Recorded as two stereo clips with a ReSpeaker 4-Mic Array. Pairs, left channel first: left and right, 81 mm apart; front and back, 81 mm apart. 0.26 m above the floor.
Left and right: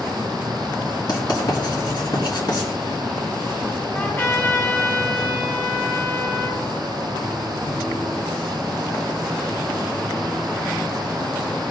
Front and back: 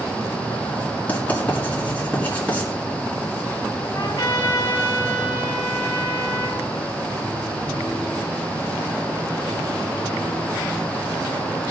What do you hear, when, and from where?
1.1 s writing: 70° left, 3 m
3.9 s a trumpet: 35° left, 3.5 m